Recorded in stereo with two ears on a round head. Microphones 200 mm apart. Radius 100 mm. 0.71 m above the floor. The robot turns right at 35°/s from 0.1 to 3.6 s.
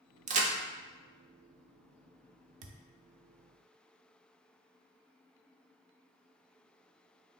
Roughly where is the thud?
Right.